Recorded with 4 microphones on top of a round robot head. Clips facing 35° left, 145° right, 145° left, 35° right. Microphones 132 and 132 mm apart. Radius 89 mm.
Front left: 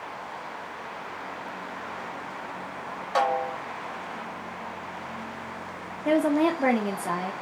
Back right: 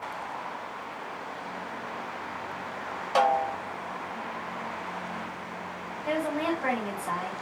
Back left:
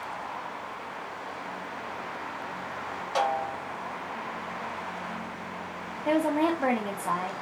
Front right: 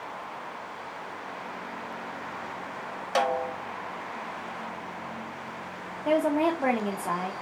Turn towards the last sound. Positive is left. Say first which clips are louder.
# front left 7 dB, front right 1 dB
turn(degrees=40)